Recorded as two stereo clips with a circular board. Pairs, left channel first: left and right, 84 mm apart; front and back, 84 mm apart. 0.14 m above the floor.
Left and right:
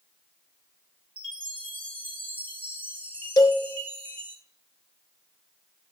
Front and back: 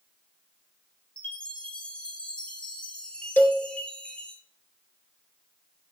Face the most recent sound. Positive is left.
turn(degrees=60)